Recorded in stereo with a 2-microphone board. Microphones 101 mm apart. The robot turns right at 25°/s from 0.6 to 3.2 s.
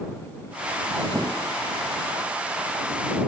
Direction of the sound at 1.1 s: 5° right (ahead or behind).